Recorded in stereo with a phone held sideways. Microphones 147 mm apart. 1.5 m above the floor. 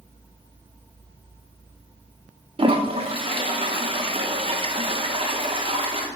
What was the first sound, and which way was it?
A toilet flushing, 40° right (ahead or behind).